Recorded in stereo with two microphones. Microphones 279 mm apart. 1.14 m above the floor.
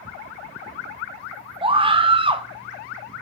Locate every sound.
1.6 s a scream: 20° right (ahead or behind), 0.9 m